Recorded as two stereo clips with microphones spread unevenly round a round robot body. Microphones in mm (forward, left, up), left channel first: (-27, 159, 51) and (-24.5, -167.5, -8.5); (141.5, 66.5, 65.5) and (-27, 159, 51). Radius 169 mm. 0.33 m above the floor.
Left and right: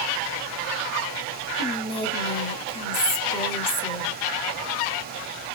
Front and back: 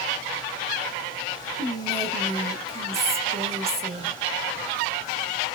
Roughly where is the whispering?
Behind.